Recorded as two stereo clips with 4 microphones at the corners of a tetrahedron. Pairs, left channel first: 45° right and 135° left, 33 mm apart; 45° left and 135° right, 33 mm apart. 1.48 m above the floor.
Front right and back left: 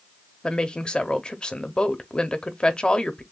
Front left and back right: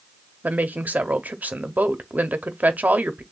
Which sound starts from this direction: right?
A woman speaking, at 0.4 s.